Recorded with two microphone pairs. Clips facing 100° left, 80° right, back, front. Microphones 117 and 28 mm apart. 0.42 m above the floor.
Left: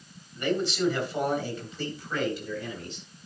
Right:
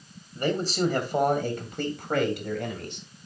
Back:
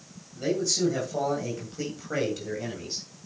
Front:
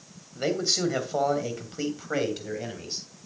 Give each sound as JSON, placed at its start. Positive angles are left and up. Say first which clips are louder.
{"t": 0.3, "sound": "a man speaking", "louder": "right 1 dB, even", "azimuth_deg": -30, "distance_m": 2.5}